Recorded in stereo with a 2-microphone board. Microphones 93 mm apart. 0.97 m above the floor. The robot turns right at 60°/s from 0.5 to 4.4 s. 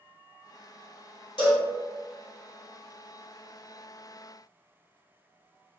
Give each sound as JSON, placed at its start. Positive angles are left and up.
{"t": 1.4, "sound": "a cowbell", "side_deg": 60, "distance_m": 1.5}